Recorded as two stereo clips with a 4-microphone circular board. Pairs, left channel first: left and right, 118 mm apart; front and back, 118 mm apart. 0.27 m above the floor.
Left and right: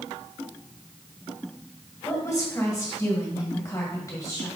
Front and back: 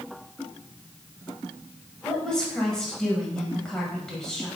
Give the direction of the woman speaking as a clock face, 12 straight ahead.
9 o'clock.